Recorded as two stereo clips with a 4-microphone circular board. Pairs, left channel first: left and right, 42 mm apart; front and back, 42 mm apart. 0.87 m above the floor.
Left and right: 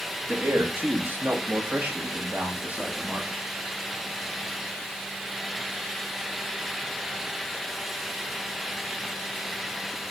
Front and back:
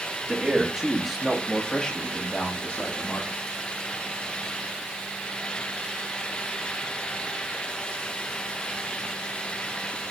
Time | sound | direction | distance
0.3 | a man speaking | 110° right | 1.8 m